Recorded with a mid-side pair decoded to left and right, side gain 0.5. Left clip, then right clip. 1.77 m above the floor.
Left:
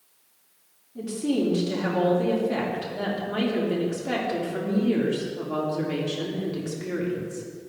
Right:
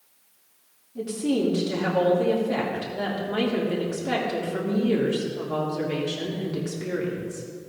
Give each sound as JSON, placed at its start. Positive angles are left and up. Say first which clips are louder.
{"t": 0.9, "sound": "a woman speaking", "louder": "right 1 dB", "azimuth_deg": 0, "distance_m": 3.0}